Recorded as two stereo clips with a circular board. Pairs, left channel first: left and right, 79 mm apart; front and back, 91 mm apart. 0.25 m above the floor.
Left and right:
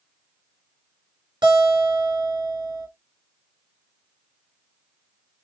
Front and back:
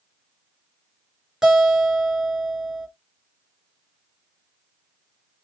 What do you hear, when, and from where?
1.4 s a guitar: 95° right, 3.5 m